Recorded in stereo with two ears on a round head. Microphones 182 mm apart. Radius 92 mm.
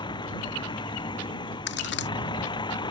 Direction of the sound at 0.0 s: 25° left (ahead or behind).